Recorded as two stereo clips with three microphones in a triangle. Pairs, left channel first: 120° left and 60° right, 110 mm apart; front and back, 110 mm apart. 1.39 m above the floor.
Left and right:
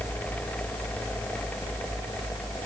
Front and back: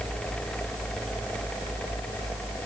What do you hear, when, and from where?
Only background noise.